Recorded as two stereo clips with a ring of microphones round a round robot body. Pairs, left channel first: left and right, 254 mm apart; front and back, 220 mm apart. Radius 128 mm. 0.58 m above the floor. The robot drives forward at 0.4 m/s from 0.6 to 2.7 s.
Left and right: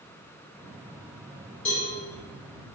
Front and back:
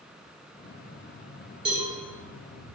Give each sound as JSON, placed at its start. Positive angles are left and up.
{"t": 1.6, "sound": "a cowbell", "azimuth_deg": 120, "distance_m": 1.8}